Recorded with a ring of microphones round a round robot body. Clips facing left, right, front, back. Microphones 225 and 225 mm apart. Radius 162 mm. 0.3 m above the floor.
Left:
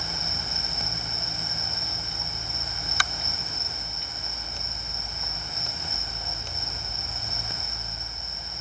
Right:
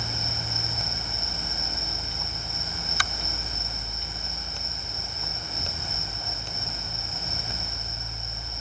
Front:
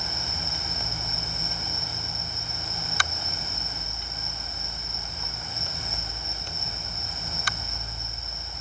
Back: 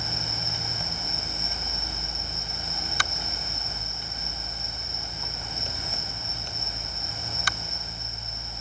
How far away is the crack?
No crack in this recording.